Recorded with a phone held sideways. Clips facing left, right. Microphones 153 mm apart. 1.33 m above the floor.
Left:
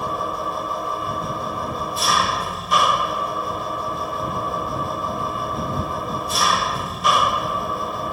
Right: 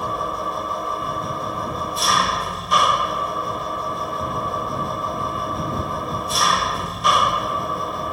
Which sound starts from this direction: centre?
An engine running, at 0.0 s.